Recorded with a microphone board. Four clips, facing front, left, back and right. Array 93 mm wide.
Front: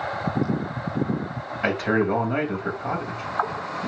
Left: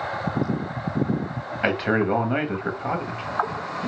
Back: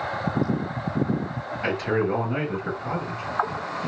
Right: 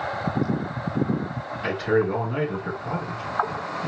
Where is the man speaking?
65° left, 1.7 m.